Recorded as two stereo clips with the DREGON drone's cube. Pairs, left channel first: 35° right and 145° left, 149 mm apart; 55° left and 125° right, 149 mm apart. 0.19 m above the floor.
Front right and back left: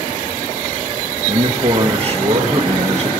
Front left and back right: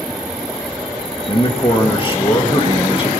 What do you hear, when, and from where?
1.3 s a man speaking: 105° left, 3.5 m